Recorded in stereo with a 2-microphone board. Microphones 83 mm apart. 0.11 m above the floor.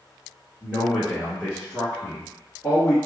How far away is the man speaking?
About 1.7 m.